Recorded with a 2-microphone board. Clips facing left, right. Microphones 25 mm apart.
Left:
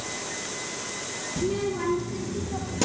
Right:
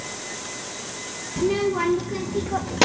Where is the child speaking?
35° right (ahead or behind), 2 m; by 2.9 s 45° right (ahead or behind), 1.4 m.